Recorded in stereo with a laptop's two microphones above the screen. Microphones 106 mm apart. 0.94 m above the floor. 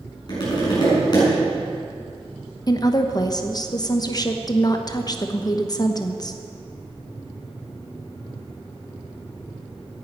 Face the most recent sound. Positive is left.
turn(degrees=35)  # may be behind; listen again after turning